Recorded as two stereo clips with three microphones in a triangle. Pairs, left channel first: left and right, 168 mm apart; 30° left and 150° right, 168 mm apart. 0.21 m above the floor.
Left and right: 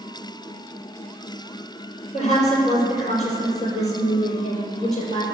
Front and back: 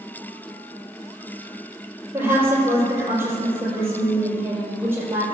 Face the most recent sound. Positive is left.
turn(degrees=135)